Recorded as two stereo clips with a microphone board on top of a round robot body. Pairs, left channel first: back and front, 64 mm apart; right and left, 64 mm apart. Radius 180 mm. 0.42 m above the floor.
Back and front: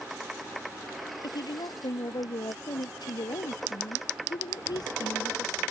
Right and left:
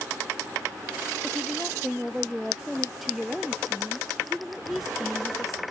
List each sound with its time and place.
1.2 s a woman speaking: straight behind